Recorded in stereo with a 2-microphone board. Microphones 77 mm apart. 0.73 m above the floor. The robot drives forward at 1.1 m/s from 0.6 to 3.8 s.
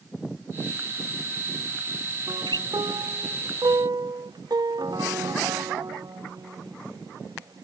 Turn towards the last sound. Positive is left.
turn(degrees=-65)  # may be behind; listen again after turning